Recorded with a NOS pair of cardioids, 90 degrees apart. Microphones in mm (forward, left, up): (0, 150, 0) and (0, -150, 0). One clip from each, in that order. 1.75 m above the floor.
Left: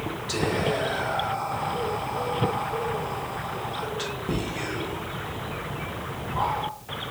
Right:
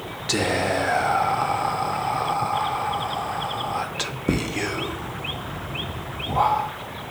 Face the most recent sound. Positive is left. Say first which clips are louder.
# right 4 dB
turn(degrees=-40)